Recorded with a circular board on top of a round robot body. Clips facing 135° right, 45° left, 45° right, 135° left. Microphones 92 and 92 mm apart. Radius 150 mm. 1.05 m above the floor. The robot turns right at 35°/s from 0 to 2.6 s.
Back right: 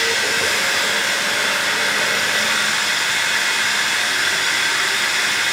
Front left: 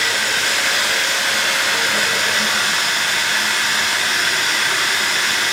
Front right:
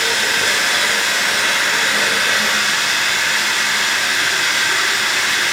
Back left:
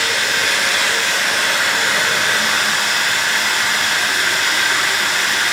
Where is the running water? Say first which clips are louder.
Even, even; 5° right, 3.5 m; by 5.5 s 85° left, 3.5 m.